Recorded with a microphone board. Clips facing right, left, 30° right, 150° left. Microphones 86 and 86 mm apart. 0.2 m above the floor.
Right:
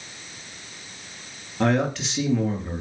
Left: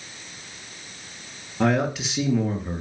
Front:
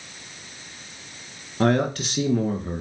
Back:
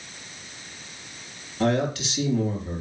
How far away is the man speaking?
About 2 m.